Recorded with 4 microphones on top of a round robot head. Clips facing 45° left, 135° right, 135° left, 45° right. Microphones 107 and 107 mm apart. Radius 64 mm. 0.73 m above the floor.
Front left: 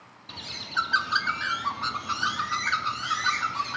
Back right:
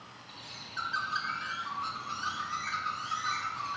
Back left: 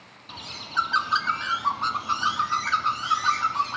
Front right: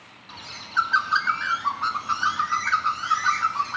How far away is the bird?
About 0.7 m.